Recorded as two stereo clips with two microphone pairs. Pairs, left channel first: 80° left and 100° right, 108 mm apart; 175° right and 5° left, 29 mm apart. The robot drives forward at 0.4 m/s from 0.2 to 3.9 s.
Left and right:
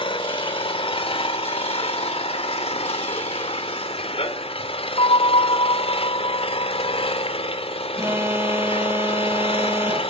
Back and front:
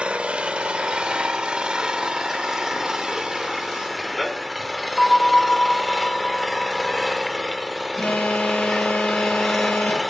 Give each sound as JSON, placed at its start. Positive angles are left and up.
{"t": 0.0, "sound": "an engine running", "azimuth_deg": 50, "distance_m": 2.5}
{"t": 5.0, "sound": "a bell", "azimuth_deg": 95, "distance_m": 1.8}
{"t": 8.0, "sound": "an alarm", "azimuth_deg": -165, "distance_m": 1.7}